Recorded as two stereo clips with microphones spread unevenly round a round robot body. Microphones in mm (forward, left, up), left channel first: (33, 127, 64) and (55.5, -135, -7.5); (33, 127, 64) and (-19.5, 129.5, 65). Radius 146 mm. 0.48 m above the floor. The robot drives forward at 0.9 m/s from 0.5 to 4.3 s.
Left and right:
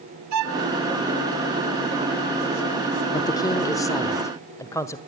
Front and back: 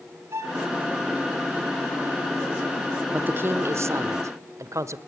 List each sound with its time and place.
0.3 s a violin: 120° right, 1.3 m; by 0.7 s 125° right, 1.4 m
3.1 s a woman speaking: 175° right, 0.7 m; by 5.0 s straight behind, 1.5 m